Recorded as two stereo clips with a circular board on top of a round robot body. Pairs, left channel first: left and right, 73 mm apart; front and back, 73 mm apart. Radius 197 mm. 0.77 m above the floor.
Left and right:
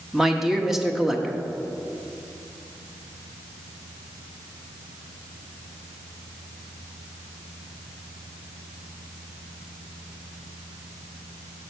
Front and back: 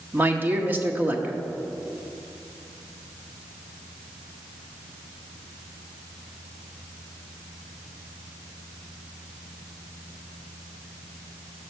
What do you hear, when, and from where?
0.1 s a man speaking: 170° right, 1.1 m